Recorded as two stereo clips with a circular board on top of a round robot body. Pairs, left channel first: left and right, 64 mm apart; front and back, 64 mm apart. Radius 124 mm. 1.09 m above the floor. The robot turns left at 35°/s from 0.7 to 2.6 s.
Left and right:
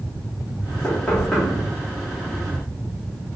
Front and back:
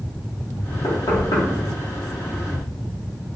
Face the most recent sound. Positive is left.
turn(degrees=-40)